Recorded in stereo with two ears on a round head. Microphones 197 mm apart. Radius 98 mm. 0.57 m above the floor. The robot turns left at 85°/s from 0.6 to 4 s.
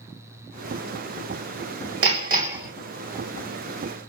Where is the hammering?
110° right, 2.5 m; by 2.7 s 170° right, 2.5 m.